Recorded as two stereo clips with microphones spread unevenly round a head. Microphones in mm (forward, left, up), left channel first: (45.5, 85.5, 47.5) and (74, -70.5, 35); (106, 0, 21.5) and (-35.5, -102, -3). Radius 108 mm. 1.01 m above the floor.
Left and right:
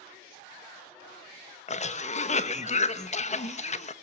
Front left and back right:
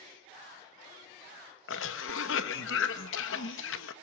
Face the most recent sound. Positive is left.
turn(degrees=55)